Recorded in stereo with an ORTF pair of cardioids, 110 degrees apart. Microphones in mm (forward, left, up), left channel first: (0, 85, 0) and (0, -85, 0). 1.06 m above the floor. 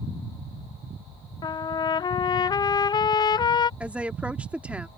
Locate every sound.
1.4 s a trumpet: 25° left
3.8 s a woman speaking: 5° right